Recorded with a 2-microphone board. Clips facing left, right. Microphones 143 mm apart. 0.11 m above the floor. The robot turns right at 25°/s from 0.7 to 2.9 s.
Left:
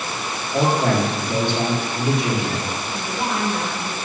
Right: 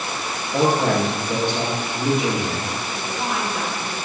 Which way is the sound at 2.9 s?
5° right (ahead or behind).